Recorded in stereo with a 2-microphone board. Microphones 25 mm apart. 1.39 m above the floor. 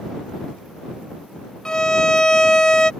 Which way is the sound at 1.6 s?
30° left (ahead or behind).